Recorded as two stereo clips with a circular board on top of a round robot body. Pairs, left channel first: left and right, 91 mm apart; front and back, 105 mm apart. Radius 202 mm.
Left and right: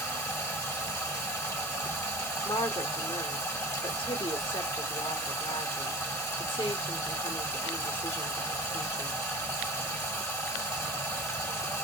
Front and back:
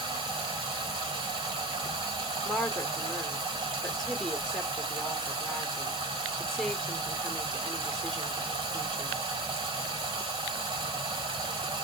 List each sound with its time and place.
0.0 s running water: 145° left, 1.7 m
2.5 s a woman speaking: 85° left, 0.9 m